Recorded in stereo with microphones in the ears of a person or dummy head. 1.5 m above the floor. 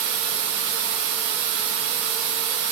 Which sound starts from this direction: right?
Running water, at 0.0 s.